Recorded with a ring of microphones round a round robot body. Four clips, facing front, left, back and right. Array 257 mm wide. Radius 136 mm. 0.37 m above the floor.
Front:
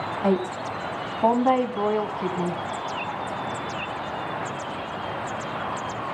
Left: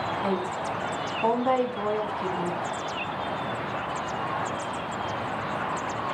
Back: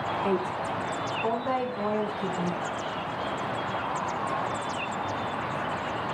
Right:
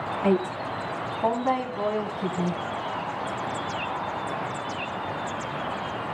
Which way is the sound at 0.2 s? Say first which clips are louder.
Right 3 dB, front 6 dB; 20° right.